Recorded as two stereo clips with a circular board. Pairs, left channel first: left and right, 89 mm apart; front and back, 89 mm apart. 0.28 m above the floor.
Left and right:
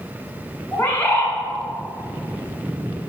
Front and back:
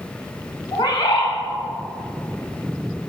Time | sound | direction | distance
0.7 | a bird | 25° left | 3 m